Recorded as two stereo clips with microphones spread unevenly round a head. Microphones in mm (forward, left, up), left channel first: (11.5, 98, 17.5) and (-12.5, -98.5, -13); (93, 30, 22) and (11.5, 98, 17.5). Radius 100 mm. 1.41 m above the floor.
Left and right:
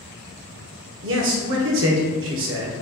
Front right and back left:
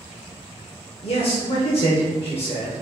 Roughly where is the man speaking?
Right.